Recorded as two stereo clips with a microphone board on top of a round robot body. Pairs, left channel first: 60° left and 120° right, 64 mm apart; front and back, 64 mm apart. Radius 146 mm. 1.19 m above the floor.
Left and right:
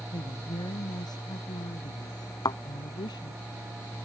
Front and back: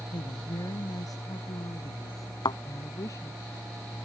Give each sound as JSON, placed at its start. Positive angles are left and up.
{"t": 0.1, "sound": "a woman speaking", "azimuth_deg": 30}
{"t": 2.5, "sound": "a thud", "azimuth_deg": 25}